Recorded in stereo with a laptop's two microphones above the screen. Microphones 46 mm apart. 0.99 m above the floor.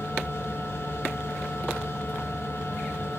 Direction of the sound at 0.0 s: 60° left (ahead or behind).